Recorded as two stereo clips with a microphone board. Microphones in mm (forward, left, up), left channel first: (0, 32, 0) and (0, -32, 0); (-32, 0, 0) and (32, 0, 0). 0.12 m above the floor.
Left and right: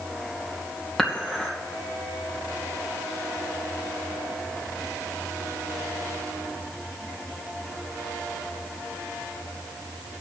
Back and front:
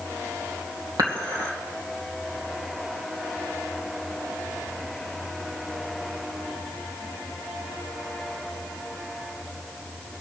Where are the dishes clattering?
5° left, 2.5 m.